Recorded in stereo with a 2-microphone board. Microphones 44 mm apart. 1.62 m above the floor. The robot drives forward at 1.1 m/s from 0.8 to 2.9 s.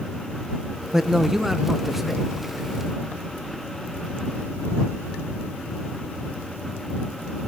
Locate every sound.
0.9 s a man speaking: 10° right (ahead or behind), 0.7 m; by 2.3 s 5° right (ahead or behind), 2 m